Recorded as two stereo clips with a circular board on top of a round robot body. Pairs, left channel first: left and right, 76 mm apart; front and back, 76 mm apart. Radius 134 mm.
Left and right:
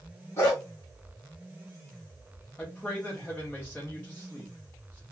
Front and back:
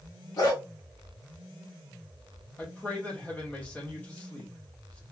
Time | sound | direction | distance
0.4 | a dog barking | 30° left | 1.6 m
2.6 | a man speaking | 50° left | 1.2 m